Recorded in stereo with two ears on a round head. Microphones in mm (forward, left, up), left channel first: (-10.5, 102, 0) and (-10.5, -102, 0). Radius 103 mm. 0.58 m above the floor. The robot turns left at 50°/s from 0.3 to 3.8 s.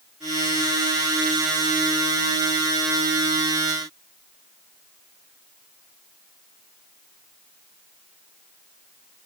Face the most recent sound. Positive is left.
No sound to turn to.